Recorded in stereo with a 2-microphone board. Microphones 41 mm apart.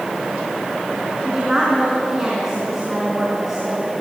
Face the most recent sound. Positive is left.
turn(degrees=-10)  # may be behind; listen again after turning